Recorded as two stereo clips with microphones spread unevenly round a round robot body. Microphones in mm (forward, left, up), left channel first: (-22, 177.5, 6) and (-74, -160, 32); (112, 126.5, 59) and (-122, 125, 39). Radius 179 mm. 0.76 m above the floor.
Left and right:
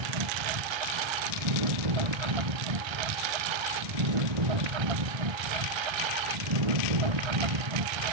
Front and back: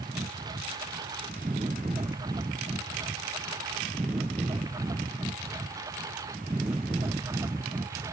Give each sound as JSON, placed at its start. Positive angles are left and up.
{"t": 0.0, "sound": "a lawn mower", "azimuth_deg": -100}